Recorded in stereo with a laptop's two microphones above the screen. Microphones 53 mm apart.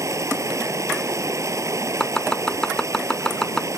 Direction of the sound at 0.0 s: 85° right.